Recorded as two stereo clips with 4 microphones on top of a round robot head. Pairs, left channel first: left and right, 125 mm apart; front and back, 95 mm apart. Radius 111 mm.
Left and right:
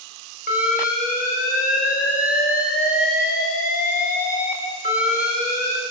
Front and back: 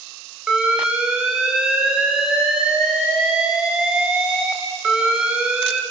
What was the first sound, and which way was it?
An alarm, 100° left.